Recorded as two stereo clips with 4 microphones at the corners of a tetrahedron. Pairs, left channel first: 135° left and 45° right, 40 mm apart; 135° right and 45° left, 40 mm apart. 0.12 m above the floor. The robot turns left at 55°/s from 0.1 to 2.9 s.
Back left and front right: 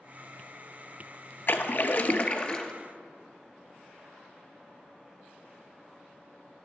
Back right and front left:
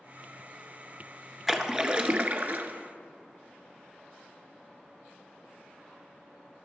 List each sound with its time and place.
1.5 s a splash: 130° left, 0.5 m; by 2.7 s 60° left, 0.5 m